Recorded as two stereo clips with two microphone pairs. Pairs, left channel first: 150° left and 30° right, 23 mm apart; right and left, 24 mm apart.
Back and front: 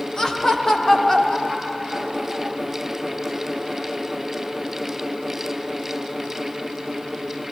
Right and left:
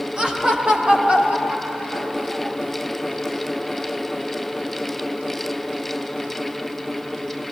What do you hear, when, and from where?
0.2 s laughter: 105° left, 1.3 m; by 2.6 s 80° left, 2.5 m